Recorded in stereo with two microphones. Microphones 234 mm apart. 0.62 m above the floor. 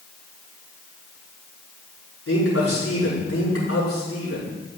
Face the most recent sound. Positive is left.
turn(degrees=75)  # may be behind; listen again after turning